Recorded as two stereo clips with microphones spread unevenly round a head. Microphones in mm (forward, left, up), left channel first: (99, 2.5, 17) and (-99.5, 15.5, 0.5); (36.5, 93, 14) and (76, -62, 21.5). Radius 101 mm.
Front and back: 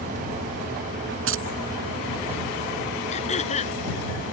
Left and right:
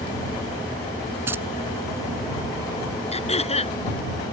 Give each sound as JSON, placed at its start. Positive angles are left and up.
{"t": 1.3, "sound": "keys jangling", "azimuth_deg": -155}
{"t": 3.1, "sound": "throat clearing", "azimuth_deg": 55}